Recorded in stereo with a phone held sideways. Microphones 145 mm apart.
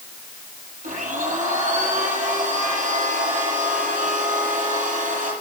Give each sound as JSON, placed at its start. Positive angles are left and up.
{"t": 0.8, "sound": "a blender", "side_deg": -60, "distance_m": 7.0}